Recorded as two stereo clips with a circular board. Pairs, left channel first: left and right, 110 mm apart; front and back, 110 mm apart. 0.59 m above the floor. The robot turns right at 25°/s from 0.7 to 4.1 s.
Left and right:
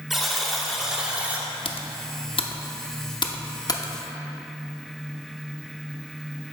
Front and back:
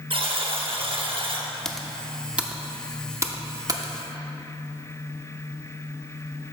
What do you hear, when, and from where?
0.1 s a buzzer: straight behind, 0.9 m; by 1.5 s 160° right, 0.9 m
1.6 s typing on a keyboard: 85° left, 0.6 m; by 3.9 s 140° left, 0.6 m